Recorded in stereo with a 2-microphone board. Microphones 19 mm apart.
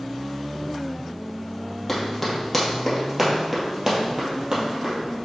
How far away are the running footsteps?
About 2.5 m.